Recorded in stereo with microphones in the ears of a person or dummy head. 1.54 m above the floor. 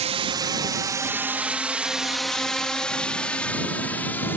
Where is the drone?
25° right (ahead or behind); by 4.4 s 15° left (ahead or behind).